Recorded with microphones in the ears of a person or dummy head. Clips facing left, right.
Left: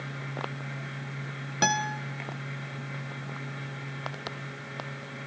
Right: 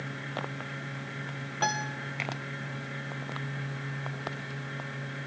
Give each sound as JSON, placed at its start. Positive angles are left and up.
{"t": 1.6, "sound": "a guitar", "side_deg": 25, "distance_m": 0.6}